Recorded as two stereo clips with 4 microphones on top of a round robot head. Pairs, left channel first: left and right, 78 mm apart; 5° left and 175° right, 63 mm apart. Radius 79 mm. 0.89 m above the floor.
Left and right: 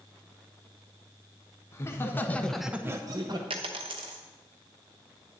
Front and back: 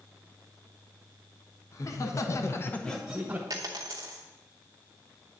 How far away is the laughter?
About 1.7 m.